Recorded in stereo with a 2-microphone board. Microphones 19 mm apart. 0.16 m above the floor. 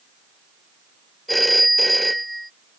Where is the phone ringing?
5° left (ahead or behind).